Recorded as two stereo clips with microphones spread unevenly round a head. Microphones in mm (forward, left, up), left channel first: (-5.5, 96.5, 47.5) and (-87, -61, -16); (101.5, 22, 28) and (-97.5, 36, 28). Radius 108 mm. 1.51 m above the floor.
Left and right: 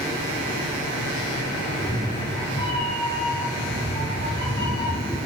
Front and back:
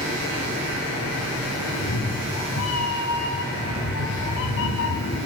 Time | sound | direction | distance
1.7 | a cat meowing | straight ahead | 4.5 m